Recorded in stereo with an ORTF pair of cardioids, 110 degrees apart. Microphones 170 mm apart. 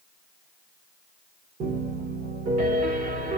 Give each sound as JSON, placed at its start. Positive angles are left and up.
{"t": 1.6, "sound": "a piano", "azimuth_deg": -65, "distance_m": 2.5}